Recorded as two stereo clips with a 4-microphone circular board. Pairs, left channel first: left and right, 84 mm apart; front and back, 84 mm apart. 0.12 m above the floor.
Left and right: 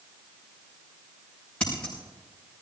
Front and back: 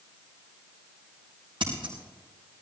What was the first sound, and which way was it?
Scissors, 165° left.